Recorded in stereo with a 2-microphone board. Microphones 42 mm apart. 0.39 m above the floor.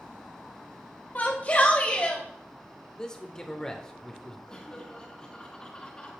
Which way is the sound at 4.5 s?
15° left (ahead or behind).